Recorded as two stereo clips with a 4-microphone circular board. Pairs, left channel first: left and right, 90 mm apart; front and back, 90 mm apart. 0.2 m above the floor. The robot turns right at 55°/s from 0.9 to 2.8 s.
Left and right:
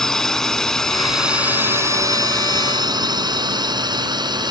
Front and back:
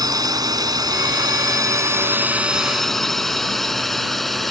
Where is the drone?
175° left; by 4.5 s 90° right.